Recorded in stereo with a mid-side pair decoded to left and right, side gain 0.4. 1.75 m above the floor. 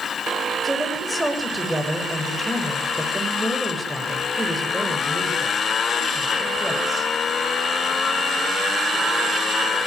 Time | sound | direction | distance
0.6 | a woman speaking | 15° right | 7.5 m